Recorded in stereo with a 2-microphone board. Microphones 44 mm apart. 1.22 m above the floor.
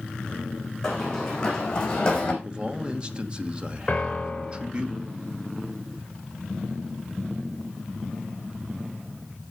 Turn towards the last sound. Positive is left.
turn(degrees=25)  # may be behind; listen again after turning